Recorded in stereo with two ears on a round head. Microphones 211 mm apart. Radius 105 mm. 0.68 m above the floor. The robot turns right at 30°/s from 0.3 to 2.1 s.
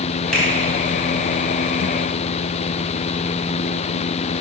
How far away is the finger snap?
About 3.5 m.